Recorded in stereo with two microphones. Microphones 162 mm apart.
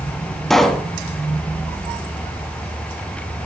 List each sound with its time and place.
0.5 s a pop: centre (ahead or behind), 1.2 m